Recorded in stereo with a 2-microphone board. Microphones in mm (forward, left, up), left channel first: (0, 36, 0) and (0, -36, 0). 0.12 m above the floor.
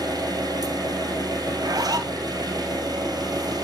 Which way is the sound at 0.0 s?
60° right (ahead or behind).